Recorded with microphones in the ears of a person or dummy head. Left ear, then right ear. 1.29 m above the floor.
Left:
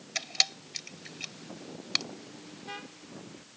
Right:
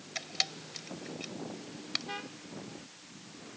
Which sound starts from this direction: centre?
A camera shutter, at 0.1 s.